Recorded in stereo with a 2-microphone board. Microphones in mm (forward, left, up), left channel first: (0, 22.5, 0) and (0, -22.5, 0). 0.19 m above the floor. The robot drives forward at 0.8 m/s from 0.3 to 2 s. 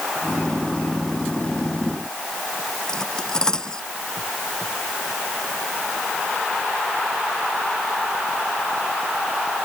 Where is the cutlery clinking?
15° left (ahead or behind).